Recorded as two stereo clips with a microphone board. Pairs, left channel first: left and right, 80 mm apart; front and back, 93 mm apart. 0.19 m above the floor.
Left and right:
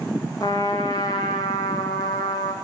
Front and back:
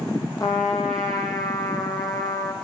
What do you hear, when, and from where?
0.4 s a trumpet: 50° left, 3 m